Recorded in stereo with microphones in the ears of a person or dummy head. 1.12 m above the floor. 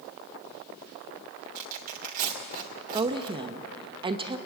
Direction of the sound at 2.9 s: 25° right (ahead or behind).